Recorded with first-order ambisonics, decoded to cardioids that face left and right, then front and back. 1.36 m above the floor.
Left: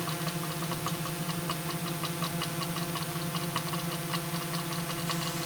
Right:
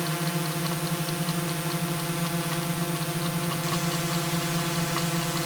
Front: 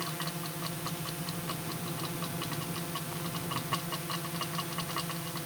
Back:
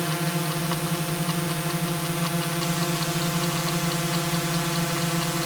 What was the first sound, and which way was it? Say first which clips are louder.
A drone: right 5 dB, back 9 dB; 155° right.